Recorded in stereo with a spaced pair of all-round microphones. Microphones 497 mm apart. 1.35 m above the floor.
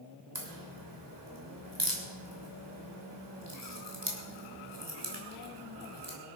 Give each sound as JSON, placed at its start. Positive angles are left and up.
{"t": 0.3, "sound": "a crack", "side_deg": -60, "distance_m": 3.0}